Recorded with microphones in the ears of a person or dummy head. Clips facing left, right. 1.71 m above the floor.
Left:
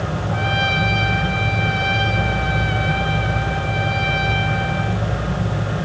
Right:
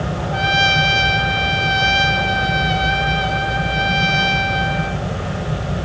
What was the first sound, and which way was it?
A trumpet, 60° right (ahead or behind).